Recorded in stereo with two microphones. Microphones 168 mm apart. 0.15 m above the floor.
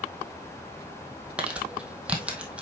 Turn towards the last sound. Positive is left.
turn(degrees=-5)  # may be behind; listen again after turning